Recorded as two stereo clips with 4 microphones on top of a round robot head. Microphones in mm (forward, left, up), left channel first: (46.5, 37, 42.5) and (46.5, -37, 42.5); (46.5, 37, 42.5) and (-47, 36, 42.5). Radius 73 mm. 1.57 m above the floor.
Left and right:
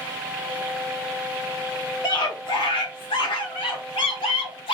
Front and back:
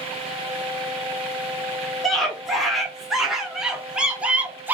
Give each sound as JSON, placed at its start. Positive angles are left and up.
{"t": 2.0, "sound": "a scream", "azimuth_deg": 85, "distance_m": 2.5}